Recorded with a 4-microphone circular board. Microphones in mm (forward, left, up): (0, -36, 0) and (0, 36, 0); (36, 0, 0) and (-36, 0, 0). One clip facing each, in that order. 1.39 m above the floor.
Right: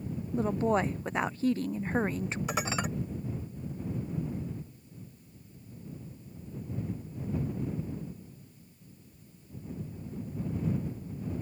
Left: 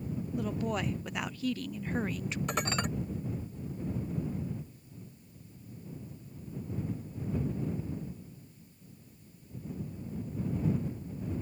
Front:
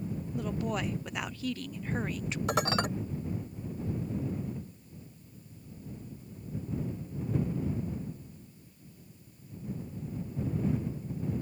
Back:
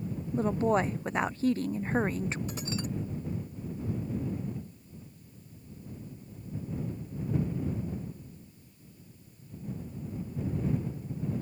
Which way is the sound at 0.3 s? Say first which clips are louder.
Right 7 dB, back 8 dB; 135° right.